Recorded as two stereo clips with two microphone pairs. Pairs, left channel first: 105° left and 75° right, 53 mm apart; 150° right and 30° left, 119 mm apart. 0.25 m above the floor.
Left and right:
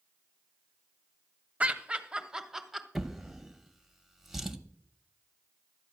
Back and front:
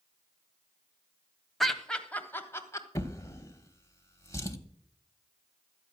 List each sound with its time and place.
1.6 s laughter: 60° right, 1.0 m; by 2.9 s 160° right, 1.1 m
3.0 s a drawer: 155° right, 0.8 m